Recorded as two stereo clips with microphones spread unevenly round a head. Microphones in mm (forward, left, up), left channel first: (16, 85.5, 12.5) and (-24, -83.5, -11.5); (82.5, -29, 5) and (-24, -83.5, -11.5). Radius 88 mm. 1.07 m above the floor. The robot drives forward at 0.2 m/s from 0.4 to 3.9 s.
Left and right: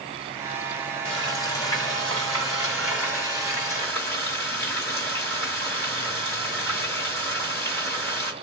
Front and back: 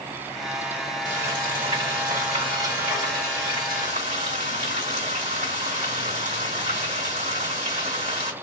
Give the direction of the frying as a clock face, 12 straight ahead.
7 o'clock.